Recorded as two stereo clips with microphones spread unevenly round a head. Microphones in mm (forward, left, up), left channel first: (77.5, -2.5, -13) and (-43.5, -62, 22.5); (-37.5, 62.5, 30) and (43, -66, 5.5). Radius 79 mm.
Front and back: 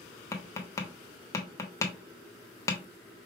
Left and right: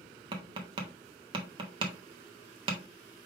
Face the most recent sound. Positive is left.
turn(degrees=-45)